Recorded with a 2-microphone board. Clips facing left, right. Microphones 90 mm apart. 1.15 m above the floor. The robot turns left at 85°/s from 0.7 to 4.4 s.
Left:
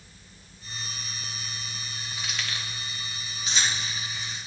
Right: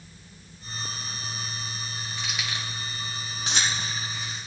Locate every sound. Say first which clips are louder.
2.2 s keys jangling: right 1 dB; 5° left (ahead or behind), 1.7 m; by 4.5 s centre (ahead or behind), 1.7 m